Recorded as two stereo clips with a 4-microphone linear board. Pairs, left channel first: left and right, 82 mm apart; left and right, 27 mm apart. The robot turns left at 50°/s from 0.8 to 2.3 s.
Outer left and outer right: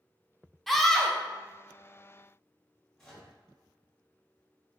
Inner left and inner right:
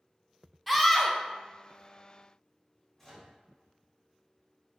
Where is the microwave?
5° left (ahead or behind), 1.4 m.